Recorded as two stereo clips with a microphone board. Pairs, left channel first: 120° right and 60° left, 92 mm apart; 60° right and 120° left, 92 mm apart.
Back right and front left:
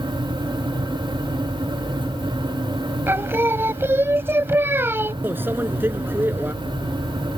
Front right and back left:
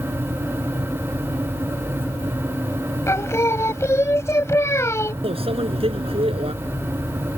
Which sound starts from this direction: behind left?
A microwave, at 5.2 s.